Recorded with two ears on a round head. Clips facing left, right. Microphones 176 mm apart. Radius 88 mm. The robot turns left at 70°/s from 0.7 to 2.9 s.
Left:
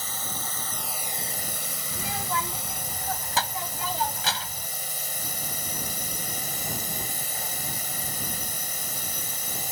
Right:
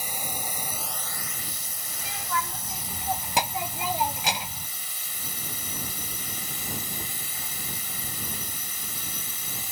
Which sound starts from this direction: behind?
A drone, at 0.0 s.